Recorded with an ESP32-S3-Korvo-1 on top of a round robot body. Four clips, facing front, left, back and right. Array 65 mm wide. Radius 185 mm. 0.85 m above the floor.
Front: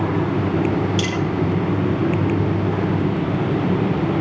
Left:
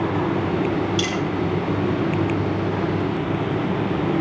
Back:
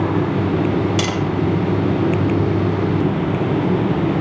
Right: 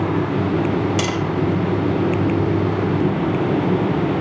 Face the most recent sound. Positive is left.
turn(degrees=-140)